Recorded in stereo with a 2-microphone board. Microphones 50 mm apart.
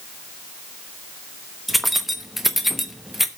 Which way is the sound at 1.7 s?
Centre (ahead or behind).